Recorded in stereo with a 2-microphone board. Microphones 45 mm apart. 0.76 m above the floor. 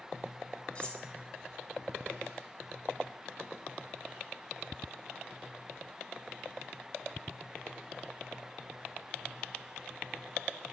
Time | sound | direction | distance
0.8 | cutlery clinking | 25° left (ahead or behind) | 1.2 m